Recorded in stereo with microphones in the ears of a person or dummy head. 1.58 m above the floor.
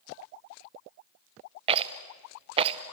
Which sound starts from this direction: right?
A rattle, at 1.7 s.